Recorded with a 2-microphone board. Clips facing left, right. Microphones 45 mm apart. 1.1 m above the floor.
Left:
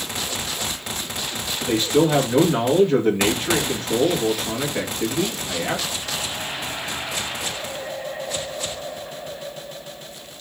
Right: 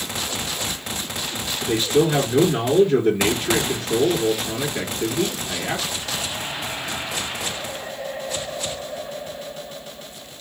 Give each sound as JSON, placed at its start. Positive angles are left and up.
{"t": 1.6, "sound": "a man speaking", "side_deg": 45, "distance_m": 1.6}